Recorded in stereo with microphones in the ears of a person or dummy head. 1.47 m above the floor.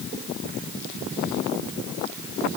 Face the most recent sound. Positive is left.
No sound to turn to.